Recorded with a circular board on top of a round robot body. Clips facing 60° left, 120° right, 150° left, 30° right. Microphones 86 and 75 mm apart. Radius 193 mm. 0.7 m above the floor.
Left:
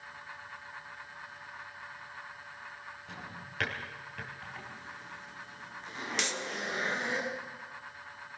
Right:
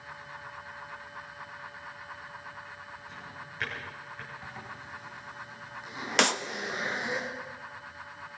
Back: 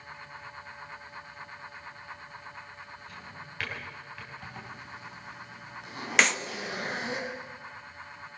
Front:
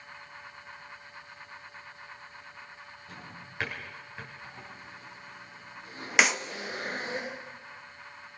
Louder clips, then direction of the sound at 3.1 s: Right 1 dB, back 1 dB; 35° left.